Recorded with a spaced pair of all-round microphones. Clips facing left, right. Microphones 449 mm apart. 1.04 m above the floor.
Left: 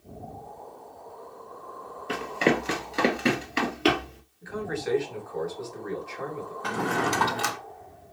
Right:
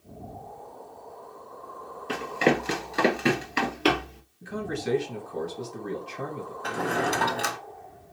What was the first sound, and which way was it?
Running footsteps, centre (ahead or behind).